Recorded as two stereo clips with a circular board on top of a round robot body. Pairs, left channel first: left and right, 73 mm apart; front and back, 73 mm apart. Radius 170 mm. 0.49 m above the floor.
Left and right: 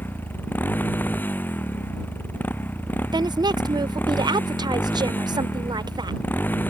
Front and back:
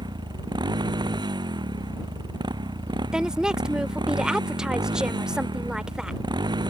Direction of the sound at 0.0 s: 155° left.